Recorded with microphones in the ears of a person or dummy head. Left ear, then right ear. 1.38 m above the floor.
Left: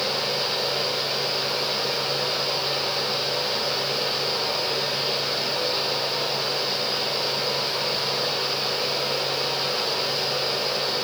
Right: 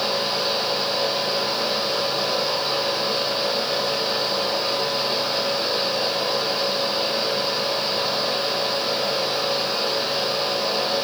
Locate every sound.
0.0 s a fan: 15° right (ahead or behind), 4.5 m